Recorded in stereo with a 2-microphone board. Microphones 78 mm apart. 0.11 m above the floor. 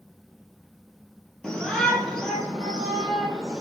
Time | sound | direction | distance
1.4 | a shout | 10° left (ahead or behind) | 2.5 m